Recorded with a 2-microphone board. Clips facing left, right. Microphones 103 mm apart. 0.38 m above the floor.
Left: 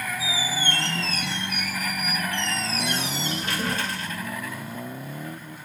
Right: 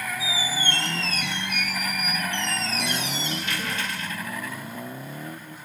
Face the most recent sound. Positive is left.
turn(degrees=35)  # may be behind; listen again after turning